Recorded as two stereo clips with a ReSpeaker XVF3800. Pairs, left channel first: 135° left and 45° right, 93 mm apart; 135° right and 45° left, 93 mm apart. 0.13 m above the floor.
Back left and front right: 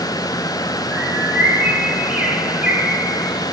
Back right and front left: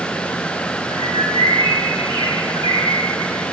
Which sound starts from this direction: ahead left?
A bird, at 0.9 s.